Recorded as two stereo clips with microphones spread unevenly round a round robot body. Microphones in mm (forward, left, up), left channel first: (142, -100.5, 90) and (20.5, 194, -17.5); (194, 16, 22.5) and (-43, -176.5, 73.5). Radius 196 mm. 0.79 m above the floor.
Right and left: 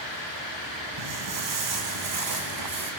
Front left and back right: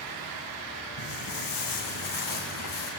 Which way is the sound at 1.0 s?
80° left.